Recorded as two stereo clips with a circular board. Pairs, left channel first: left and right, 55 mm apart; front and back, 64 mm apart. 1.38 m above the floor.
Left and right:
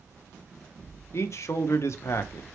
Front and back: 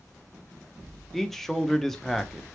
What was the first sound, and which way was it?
A man speaking, 85° left.